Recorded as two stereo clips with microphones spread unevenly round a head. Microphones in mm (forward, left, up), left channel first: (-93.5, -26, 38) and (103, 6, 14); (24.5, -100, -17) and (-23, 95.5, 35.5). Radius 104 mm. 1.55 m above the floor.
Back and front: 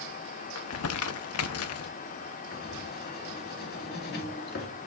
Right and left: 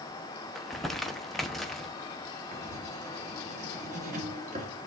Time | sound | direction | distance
0.6 | crumpling | 170° right | 0.7 m
2.5 | writing | 150° left | 2.0 m